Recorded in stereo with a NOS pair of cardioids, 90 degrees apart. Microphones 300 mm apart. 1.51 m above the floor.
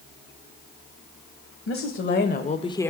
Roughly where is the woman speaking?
Ahead left.